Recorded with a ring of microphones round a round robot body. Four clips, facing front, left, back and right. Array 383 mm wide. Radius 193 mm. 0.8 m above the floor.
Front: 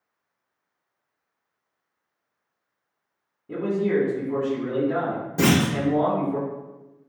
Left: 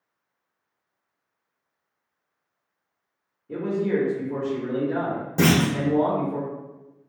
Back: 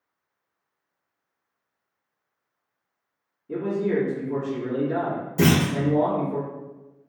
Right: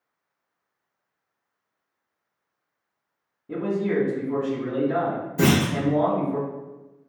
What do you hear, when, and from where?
3.5 s a man speaking: 60° right, 1.5 m
5.4 s a clunk: 70° left, 1.5 m